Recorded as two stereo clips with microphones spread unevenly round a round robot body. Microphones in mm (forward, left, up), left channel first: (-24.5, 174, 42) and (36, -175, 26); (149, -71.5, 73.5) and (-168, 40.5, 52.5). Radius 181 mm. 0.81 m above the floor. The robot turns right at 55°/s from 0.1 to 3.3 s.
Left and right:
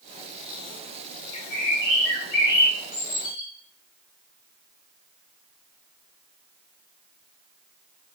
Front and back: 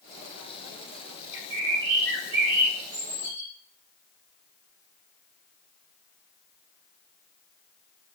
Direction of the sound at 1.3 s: 100° left.